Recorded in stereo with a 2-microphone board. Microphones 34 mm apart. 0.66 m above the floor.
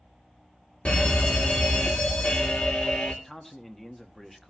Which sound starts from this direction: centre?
A man speaking, at 3.2 s.